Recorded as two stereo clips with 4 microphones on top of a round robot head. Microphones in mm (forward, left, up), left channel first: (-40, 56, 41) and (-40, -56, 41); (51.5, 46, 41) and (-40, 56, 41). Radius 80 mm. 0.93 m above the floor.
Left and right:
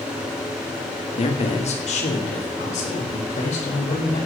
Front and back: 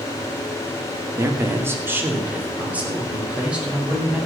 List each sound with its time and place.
1.2 s a man speaking: 115° left, 2.5 m; by 4.2 s 95° left, 6 m